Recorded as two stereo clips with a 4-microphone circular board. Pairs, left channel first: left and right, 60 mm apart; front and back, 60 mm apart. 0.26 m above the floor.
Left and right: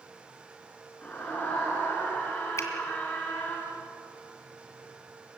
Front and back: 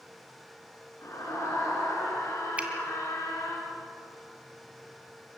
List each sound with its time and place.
1.0 s a scream: 25° left, 3.5 m
2.6 s a finger snap: 115° left, 2.5 m